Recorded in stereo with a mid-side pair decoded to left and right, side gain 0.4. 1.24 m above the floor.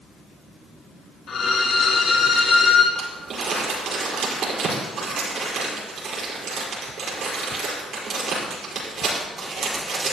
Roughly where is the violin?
Ahead left.